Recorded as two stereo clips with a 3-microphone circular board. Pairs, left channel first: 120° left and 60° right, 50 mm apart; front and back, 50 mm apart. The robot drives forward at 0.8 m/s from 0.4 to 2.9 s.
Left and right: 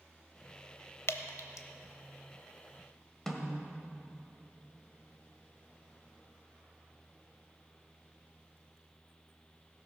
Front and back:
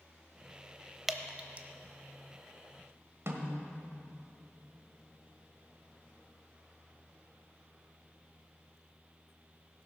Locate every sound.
1.1 s dripping: 95° left, 0.7 m; by 1.7 s 130° left, 0.8 m
3.3 s a snare drum: 160° right, 1.7 m